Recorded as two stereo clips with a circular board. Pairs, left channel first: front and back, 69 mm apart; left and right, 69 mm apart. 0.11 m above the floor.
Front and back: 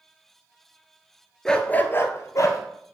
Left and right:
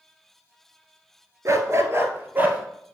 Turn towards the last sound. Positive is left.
turn(degrees=-25)